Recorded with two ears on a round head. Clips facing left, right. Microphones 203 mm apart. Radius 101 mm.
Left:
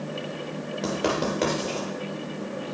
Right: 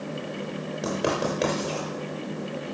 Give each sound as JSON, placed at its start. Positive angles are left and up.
{"t": 0.8, "sound": "writing", "side_deg": 5, "distance_m": 5.5}